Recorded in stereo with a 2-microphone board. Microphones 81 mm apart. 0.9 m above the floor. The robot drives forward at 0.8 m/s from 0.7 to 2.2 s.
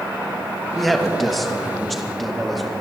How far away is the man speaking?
About 1.3 m.